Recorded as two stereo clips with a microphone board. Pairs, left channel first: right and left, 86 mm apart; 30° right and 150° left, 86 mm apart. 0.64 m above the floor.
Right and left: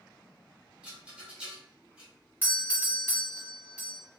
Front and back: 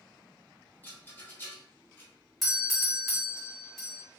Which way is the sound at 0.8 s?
20° left.